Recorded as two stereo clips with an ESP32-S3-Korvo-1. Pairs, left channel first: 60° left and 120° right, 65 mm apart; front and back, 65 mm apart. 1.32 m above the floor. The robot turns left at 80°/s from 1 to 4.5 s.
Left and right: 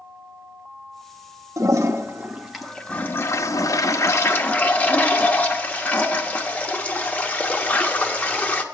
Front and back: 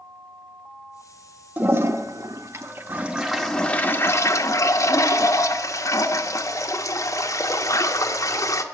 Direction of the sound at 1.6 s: 125° right.